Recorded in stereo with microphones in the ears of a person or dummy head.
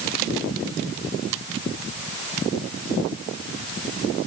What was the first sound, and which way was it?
Only background noise.